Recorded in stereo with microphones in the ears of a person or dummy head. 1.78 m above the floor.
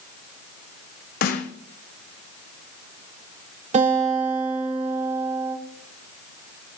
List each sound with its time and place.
1.2 s a snare drum: 60° left (ahead or behind), 1.2 m
3.7 s a guitar: 40° right (ahead or behind), 6 m